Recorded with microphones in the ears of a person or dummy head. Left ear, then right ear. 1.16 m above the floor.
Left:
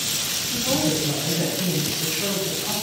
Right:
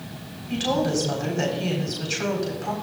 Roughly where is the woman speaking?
Right.